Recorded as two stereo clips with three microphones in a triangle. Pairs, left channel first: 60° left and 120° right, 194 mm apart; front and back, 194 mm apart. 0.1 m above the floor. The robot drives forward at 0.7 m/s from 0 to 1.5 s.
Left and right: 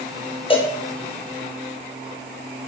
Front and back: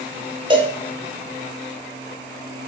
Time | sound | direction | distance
0.5 | a cowbell | 115° left | 1.4 m